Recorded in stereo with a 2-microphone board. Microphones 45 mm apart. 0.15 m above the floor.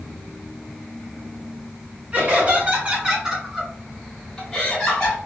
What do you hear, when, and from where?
2.1 s laughter: 35° right (ahead or behind), 1.4 m; by 5.2 s 20° left (ahead or behind), 1.6 m